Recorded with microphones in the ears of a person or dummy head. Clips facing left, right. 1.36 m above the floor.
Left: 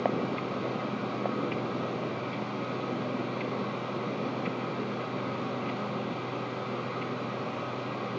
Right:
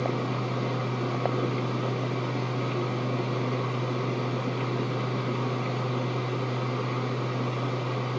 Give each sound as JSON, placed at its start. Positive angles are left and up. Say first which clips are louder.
{"t": 0.0, "sound": "a fan", "louder": "even", "side_deg": -55, "distance_m": 0.9}